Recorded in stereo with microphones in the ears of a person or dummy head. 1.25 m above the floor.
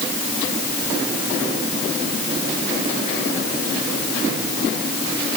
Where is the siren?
No siren in this recording.